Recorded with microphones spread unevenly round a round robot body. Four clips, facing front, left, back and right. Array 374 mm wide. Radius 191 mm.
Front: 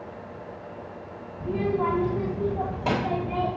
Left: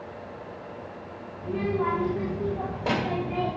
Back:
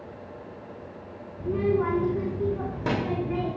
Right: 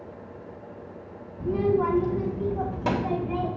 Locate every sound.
1.4 s a child speaking: 120° right, 2.5 m; by 3.5 s 125° right, 3.5 m